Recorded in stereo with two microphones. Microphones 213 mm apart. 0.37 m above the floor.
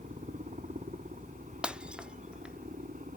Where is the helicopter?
35° right (ahead or behind); by 3.2 s 40° right (ahead or behind).